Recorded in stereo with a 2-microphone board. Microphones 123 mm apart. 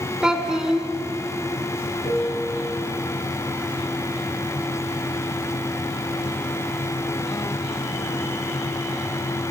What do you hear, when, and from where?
0.2 s a child speaking: 5° right (ahead or behind), 0.6 m
2.0 s a piano: 40° left (ahead or behind), 4 m